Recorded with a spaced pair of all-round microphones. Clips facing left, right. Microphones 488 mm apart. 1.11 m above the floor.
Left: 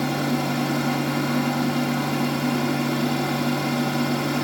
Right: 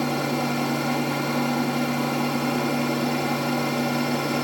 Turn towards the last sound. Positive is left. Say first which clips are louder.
# left 1 dB
turn(degrees=35)  # may be behind; listen again after turning